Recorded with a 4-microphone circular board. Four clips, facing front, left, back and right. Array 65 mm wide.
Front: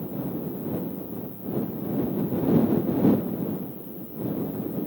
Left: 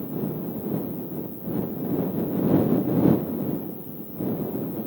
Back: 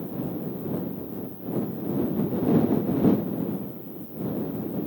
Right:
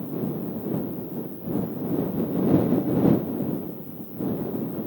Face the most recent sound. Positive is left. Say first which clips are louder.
# even, even
turn(degrees=10)